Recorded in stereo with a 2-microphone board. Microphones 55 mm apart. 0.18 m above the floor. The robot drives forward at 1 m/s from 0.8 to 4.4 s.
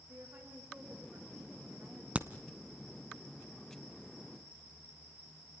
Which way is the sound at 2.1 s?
25° right (ahead or behind).